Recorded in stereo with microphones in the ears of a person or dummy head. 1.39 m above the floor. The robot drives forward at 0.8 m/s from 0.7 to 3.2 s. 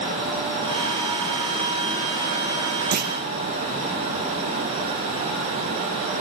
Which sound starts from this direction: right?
A clunk, at 2.9 s.